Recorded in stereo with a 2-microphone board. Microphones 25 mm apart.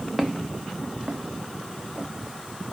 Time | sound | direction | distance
0.2 | footsteps | 5° right (ahead or behind) | 1.3 m